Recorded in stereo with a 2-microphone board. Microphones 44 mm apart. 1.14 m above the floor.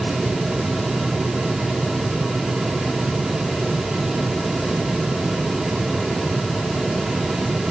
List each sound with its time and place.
Only background noise.